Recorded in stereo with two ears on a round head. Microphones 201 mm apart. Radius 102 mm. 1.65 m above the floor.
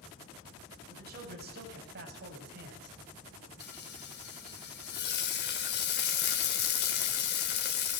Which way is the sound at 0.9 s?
45° right (ahead or behind).